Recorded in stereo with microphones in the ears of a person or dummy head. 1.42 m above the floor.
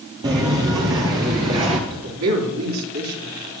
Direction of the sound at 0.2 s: 25° right (ahead or behind).